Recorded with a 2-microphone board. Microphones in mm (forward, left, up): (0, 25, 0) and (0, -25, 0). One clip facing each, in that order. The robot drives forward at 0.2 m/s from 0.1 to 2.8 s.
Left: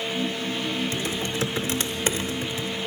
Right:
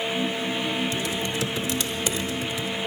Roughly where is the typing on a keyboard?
Left.